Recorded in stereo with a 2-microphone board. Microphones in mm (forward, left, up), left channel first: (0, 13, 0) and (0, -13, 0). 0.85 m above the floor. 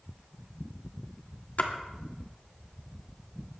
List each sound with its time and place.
1.6 s a splash: 60° left (ahead or behind), 1.8 m